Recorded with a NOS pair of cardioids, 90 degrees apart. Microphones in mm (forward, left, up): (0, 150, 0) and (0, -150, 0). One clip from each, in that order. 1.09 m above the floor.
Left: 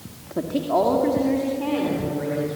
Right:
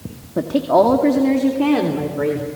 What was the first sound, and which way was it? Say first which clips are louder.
A woman speaking: right 7 dB; 30° right.